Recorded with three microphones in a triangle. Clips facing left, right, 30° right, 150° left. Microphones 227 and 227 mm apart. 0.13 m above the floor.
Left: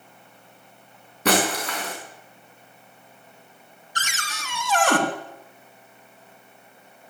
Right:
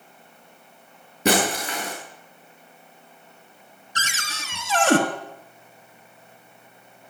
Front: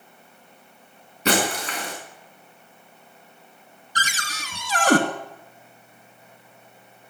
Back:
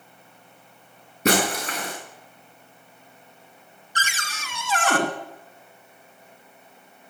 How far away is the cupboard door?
About 1.9 m.